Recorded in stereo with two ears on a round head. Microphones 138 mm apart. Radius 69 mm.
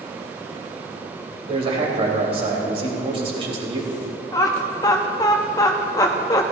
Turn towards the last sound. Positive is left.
turn(degrees=20)  # may be behind; listen again after turning